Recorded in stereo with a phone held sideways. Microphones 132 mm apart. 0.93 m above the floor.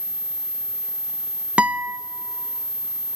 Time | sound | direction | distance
1.6 | a guitar | 10° right (ahead or behind) | 0.5 m